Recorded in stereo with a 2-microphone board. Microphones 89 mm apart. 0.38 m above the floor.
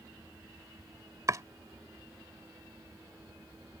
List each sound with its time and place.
1.3 s chopping: 40° right (ahead or behind)